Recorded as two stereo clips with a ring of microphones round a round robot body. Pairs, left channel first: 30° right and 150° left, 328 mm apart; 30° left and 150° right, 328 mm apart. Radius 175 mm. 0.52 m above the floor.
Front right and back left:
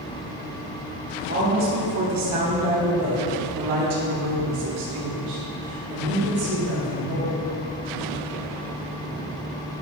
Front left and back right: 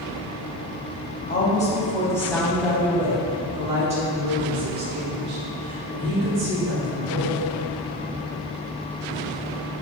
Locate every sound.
1.3 s a woman speaking: 90° left, 3 m; by 7.4 s 160° left, 8 m